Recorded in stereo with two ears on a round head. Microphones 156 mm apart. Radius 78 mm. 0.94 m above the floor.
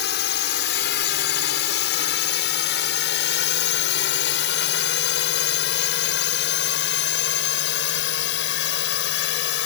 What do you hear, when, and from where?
0.0 s a drone: 65° left (ahead or behind); by 9.7 s 75° left (ahead or behind)